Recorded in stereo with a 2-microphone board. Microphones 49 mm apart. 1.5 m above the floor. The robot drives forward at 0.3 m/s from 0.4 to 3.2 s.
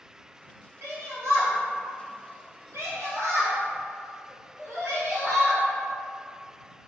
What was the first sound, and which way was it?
A shout, 65° right (ahead or behind).